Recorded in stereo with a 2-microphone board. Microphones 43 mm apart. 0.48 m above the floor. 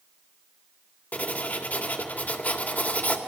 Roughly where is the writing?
Left.